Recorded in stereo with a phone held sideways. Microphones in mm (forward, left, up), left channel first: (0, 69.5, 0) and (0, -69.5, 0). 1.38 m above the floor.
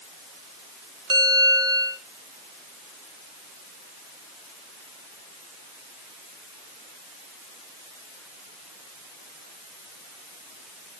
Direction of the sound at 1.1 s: 35° right (ahead or behind).